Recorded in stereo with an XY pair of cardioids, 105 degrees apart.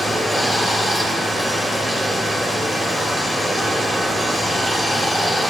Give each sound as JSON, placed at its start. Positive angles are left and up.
{"t": 0.0, "sound": "running water", "azimuth_deg": 25, "distance_m": 1.9}